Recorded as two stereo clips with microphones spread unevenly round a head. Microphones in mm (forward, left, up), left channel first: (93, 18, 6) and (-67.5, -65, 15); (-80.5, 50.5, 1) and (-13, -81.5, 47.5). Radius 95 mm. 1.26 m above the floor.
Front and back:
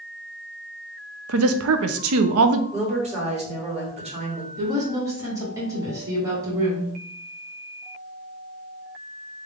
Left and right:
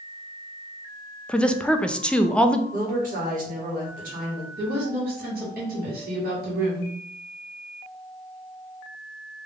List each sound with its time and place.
1.3 s a woman speaking: 160° right, 0.5 m
2.7 s a woman speaking: 95° right, 2 m
4.6 s a woman speaking: 80° right, 2 m